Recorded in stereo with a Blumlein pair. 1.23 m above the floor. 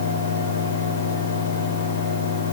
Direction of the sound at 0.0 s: 65° left.